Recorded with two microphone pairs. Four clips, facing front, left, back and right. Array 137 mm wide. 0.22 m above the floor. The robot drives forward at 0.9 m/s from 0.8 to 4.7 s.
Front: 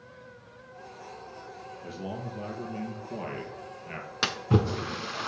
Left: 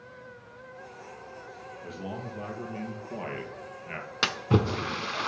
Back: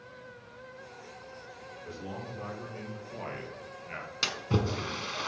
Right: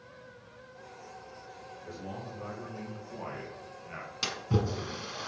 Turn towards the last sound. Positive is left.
turn(degrees=85)